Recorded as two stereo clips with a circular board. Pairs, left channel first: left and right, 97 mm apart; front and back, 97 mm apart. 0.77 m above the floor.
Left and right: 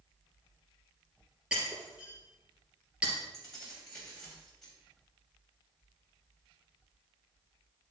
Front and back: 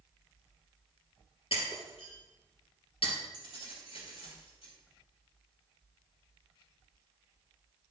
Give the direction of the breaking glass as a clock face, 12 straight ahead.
12 o'clock.